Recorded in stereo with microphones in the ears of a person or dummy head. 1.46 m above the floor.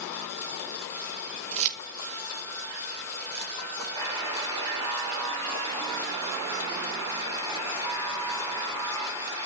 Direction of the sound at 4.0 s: 25° right (ahead or behind).